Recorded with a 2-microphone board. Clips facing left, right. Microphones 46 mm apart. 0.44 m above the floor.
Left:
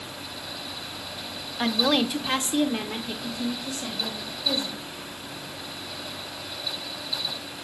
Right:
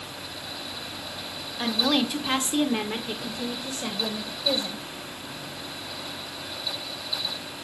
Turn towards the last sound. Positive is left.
turn(degrees=-50)  # may be behind; listen again after turning